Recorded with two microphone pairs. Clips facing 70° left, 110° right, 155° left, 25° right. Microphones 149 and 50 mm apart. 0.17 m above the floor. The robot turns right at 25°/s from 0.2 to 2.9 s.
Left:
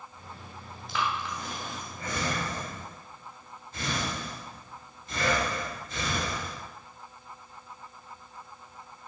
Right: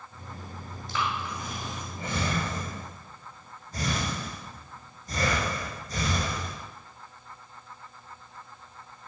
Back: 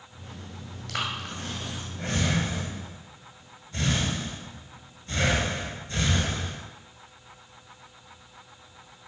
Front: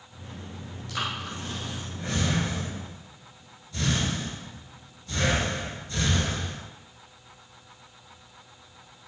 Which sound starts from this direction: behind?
Breathing, at 0.9 s.